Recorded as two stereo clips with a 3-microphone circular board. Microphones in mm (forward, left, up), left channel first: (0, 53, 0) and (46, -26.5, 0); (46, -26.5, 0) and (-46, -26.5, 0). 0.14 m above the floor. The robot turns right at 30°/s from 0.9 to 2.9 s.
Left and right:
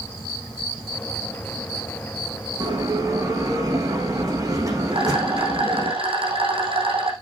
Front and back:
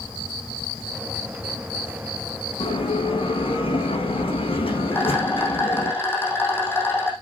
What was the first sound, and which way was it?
A bell, 15° right.